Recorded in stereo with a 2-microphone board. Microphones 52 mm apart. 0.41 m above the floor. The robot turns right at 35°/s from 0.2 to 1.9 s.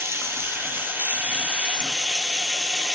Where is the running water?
75° right, 0.9 m; by 3.0 s 15° right, 0.9 m.